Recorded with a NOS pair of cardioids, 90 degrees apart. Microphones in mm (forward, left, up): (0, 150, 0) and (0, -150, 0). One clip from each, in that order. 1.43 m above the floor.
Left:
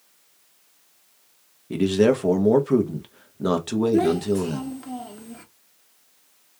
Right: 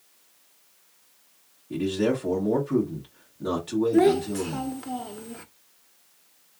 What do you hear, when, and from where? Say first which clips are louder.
1.7 s a man speaking: left 6 dB; 55° left, 1.4 m
3.9 s a child speaking: right 1 dB; 15° right, 0.6 m